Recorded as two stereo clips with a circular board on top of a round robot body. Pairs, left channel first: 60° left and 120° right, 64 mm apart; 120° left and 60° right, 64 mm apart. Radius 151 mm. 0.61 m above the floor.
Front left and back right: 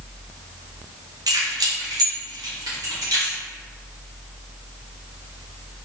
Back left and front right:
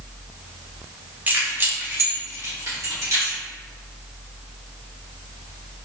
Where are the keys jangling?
125° right, 1.1 m; by 3.4 s 95° right, 2.5 m.